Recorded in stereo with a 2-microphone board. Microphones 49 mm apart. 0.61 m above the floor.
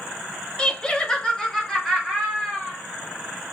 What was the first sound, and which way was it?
Laughter, 15° left (ahead or behind).